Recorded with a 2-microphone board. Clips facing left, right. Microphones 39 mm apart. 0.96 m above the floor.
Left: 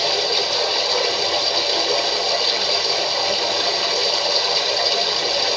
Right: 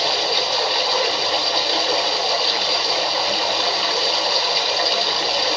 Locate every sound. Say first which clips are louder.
0.0 s running water: even; 10° right (ahead or behind), 2 m